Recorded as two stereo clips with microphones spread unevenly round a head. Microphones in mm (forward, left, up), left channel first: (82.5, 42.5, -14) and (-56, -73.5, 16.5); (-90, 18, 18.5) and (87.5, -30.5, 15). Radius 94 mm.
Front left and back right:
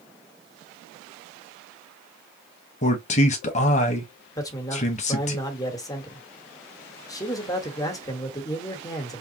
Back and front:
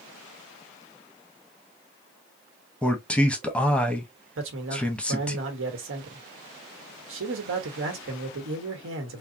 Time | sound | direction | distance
2.8 | a man speaking | 80° left | 0.7 m
4.4 | a man speaking | 30° right | 1.1 m